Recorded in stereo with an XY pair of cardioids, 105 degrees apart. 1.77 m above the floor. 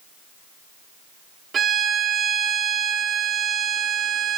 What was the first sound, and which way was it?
A violin, 45° right.